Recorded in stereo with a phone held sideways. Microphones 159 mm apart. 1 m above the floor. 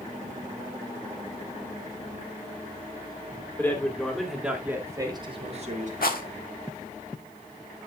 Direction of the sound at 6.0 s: 80° left.